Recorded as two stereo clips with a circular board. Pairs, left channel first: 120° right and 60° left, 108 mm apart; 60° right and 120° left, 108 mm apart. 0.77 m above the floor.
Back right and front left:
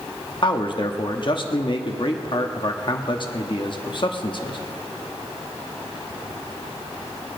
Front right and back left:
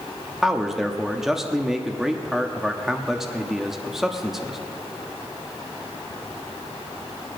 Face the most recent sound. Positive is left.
turn(degrees=-155)